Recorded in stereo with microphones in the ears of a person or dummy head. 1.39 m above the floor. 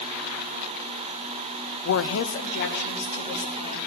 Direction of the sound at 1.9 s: 80° left.